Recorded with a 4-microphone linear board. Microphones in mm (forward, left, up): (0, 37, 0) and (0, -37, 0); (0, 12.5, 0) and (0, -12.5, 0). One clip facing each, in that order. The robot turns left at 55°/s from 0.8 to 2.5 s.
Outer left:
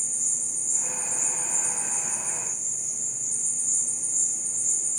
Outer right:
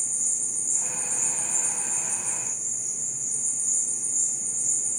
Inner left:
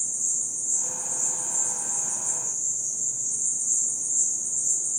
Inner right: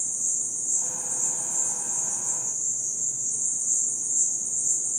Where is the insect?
75° right, 0.9 m; by 5.0 s 170° right, 0.9 m.